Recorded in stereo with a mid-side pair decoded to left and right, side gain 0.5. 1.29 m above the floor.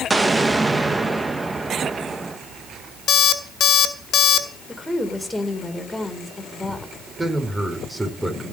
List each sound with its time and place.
0.1 s an explosion: 20° right, 1.3 m
3.1 s an alarm clock: 50° left, 2 m
4.7 s a woman speaking: 5° left, 4.5 m
7.2 s a man speaking: 15° right, 5 m